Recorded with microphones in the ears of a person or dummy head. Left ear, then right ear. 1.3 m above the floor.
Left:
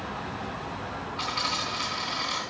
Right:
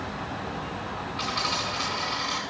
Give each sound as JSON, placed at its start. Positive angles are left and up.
{"t": 1.2, "sound": "a dropped coin", "side_deg": 5, "distance_m": 3.5}